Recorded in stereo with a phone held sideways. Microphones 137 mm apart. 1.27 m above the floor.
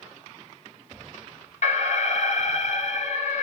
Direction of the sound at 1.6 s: 55° left (ahead or behind).